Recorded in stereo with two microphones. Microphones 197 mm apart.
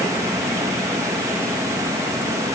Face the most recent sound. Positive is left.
No sound to turn to.